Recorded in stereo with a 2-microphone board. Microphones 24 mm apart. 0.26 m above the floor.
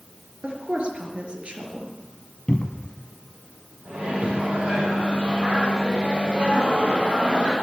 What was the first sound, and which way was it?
A woman speaking, 50° right (ahead or behind).